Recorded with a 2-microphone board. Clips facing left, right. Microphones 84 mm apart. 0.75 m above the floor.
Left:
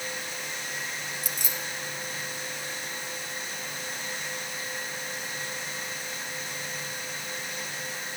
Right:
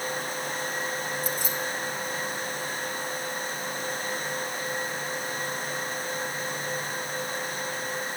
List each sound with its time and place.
1.2 s keys jangling: 85° left, 2 m